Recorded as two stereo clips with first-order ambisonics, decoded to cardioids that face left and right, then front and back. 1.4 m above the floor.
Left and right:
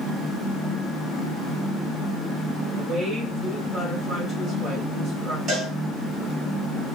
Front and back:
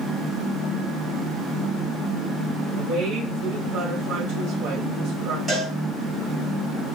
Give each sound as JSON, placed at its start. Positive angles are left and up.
{"t": 2.8, "sound": "a woman speaking", "azimuth_deg": -155, "distance_m": 1.5}
{"t": 5.5, "sound": "a cowbell", "azimuth_deg": -100, "distance_m": 1.4}